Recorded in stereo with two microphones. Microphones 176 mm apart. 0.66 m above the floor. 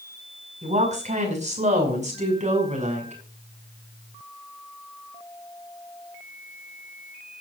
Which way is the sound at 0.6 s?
45° right (ahead or behind).